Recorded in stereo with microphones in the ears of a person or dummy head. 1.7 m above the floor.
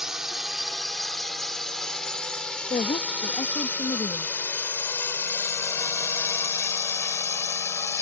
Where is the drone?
Centre (ahead or behind); by 8.0 s 20° left (ahead or behind).